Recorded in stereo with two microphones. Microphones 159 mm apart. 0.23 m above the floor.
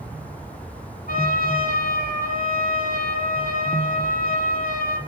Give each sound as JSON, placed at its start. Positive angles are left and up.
{"t": 1.1, "sound": "a trumpet", "side_deg": 60, "distance_m": 1.7}